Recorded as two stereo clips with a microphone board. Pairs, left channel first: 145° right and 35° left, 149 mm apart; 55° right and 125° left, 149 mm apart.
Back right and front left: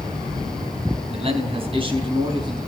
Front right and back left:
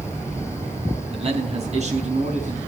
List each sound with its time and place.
1.1 s a man speaking: 80° left, 4 m; by 2.6 s 90° left, 4.5 m